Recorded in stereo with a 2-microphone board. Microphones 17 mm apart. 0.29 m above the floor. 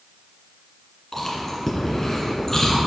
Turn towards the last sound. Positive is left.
turn(degrees=20)  # may be behind; listen again after turning